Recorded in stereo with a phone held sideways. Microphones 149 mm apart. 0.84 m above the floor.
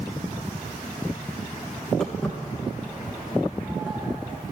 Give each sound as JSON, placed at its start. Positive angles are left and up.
{"t": 2.0, "sound": "footsteps", "side_deg": 5, "distance_m": 3.0}